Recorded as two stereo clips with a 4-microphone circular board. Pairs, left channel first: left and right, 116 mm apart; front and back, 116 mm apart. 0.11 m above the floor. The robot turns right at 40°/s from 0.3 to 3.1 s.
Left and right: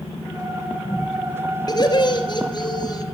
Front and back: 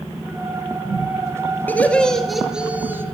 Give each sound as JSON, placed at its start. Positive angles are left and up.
{"t": 1.7, "sound": "laughter", "azimuth_deg": 65, "distance_m": 1.9}